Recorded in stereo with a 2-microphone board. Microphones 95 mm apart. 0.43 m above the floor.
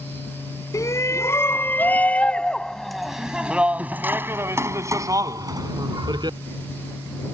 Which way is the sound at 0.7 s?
35° left (ahead or behind).